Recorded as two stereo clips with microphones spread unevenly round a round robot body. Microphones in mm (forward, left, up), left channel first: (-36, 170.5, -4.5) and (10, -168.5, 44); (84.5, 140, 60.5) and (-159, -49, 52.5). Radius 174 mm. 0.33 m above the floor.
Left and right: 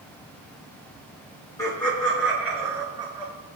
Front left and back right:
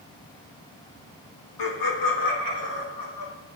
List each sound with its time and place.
1.6 s laughter: 20° left, 3.5 m; by 3.3 s 5° right, 4.5 m